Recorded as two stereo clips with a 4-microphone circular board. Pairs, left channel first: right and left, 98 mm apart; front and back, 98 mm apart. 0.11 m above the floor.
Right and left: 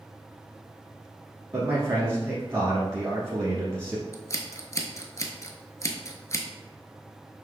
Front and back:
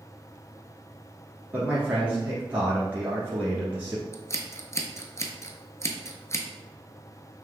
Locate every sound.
1.5 s a man speaking: 120° left, 1.3 m
4.1 s scissors: 45° right, 0.6 m